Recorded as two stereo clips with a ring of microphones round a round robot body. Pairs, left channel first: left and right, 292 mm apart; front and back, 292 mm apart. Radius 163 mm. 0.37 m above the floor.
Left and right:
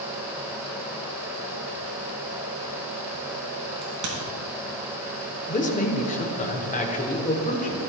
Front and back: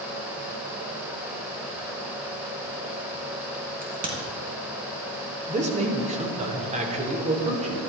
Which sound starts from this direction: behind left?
A man speaking, at 5.5 s.